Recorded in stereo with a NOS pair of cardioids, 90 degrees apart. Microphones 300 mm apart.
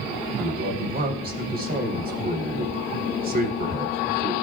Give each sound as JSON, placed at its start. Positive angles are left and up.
{"t": 0.4, "sound": "a man speaking", "azimuth_deg": -30, "distance_m": 3.5}